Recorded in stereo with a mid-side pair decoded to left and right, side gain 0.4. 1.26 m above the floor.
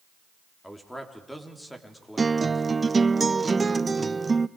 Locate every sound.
0.6 s a man speaking: 5° left, 4 m
2.2 s a guitar: 30° right, 0.6 m